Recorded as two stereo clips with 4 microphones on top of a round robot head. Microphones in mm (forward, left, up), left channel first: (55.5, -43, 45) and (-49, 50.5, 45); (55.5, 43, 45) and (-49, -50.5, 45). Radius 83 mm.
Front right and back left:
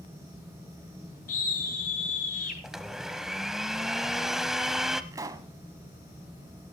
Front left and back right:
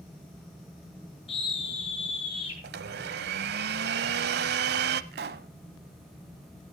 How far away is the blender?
About 0.6 m.